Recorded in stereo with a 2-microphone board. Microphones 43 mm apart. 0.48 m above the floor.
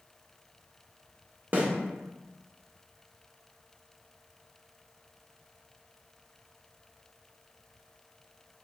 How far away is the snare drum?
About 0.9 m.